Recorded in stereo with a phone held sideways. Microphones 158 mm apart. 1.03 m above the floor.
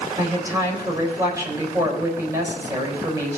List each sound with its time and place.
0.2 s a woman speaking: 20° right (ahead or behind), 4 m